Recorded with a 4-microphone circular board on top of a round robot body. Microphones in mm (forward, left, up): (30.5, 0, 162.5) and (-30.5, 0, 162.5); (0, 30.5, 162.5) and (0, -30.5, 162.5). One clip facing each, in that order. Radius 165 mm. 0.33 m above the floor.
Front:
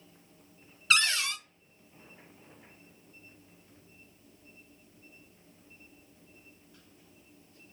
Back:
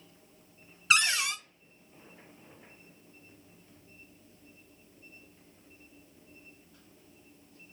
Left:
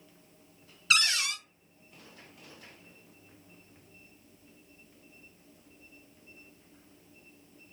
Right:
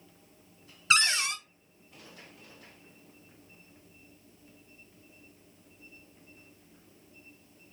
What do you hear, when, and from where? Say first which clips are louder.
0.9 s a cupboard door: back 1 dB, right 2 dB; 120° right, 0.8 m